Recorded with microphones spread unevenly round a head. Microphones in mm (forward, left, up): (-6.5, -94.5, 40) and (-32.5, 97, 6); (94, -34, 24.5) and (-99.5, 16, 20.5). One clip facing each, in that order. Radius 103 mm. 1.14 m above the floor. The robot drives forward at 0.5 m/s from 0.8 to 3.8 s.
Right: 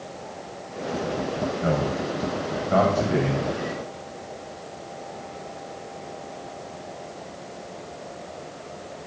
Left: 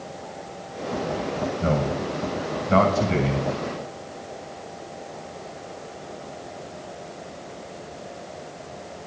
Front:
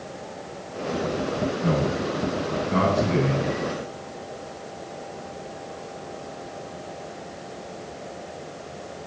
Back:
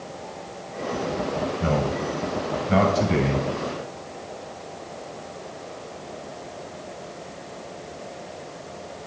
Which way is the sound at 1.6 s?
160° left.